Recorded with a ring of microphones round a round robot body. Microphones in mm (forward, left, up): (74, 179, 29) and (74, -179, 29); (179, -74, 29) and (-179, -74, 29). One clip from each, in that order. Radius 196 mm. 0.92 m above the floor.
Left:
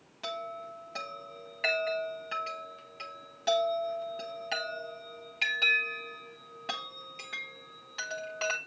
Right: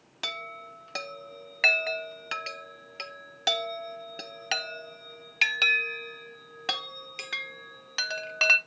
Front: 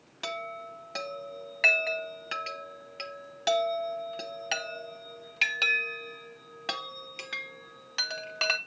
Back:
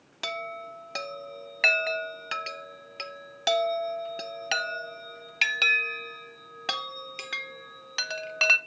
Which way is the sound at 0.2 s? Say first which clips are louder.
Right 3 dB, back 2 dB; 115° right.